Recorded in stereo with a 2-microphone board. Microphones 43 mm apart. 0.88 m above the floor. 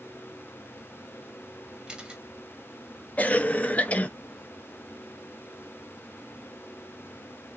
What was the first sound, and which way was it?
A camera shutter, 20° right (ahead or behind).